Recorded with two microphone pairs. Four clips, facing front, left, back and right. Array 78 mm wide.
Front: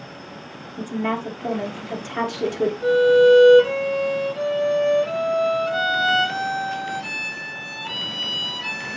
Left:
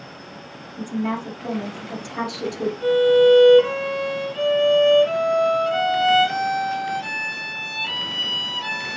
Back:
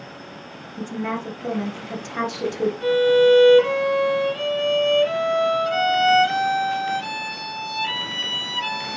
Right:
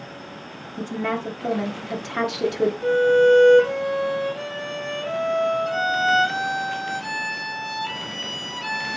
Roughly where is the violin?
Behind left.